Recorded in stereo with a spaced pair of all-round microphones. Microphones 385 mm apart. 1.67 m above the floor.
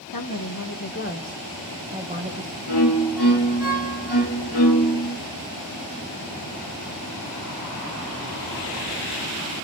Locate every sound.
0.1 s a woman speaking: 60° left (ahead or behind), 1.6 m; by 2.6 s 30° right (ahead or behind), 1.3 m
2.7 s a violin: 80° left, 2.5 m